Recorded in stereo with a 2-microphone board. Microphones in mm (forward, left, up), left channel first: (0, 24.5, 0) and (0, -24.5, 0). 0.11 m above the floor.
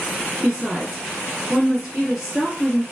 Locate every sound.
0.4 s a woman speaking: centre (ahead or behind), 1.6 m